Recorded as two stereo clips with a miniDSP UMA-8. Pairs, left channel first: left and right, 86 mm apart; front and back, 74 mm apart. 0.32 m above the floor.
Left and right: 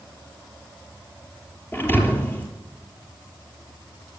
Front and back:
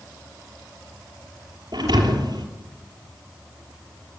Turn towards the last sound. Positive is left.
turn(degrees=155)